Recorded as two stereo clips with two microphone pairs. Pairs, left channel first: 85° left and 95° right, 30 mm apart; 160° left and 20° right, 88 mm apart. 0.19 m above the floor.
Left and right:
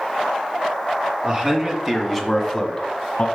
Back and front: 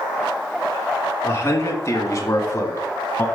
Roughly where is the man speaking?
Behind right.